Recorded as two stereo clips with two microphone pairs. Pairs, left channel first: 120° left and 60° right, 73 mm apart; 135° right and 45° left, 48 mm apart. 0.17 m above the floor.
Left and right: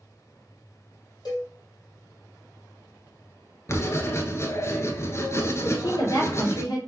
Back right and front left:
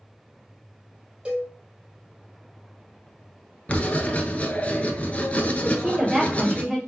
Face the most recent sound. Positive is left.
turn(degrees=115)